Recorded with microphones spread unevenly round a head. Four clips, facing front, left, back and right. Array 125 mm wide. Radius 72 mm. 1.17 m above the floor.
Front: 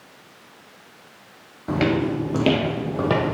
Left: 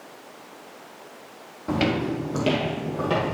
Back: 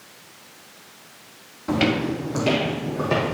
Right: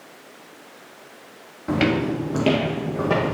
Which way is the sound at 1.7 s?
85° right.